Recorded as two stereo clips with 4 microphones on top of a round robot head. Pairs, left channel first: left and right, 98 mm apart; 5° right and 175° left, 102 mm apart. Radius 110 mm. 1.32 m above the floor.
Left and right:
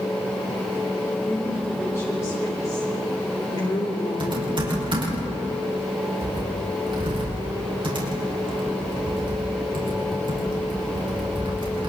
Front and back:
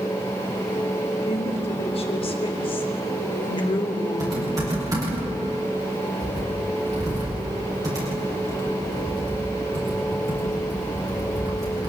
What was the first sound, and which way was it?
A woman speaking, 15° left.